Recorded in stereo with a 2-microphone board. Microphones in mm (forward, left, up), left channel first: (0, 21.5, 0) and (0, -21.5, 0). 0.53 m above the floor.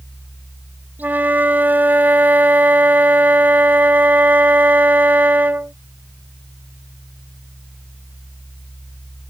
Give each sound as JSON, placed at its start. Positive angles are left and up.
{"t": 1.0, "sound": "a flute", "side_deg": -45}